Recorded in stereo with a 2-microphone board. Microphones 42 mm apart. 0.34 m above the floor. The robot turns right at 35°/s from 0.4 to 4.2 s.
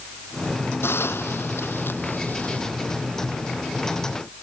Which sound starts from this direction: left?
A hiss, at 0.8 s.